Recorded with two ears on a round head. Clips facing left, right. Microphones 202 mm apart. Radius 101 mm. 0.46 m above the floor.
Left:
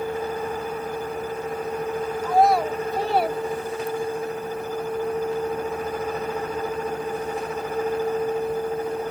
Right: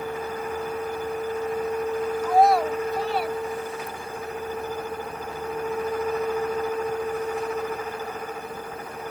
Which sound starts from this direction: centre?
A child speaking, at 2.2 s.